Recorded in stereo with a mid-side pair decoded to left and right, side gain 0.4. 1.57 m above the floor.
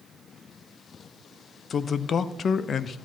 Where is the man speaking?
55° left, 0.6 m.